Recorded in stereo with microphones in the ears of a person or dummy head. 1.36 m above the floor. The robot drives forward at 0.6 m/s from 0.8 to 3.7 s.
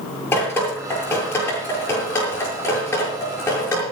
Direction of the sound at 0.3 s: 10° left (ahead or behind).